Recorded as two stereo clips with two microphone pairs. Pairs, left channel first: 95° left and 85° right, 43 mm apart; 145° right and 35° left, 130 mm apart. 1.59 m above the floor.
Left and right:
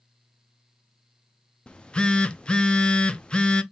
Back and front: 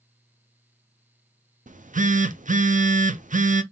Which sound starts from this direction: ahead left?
A phone buzzing, at 1.7 s.